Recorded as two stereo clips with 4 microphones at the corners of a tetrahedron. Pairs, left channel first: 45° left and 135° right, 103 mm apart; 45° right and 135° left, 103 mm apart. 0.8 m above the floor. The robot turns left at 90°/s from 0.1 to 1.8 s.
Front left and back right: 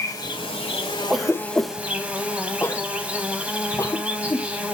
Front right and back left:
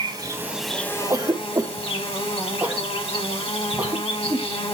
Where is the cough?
150° left, 0.6 m; by 4.5 s 85° left, 0.6 m.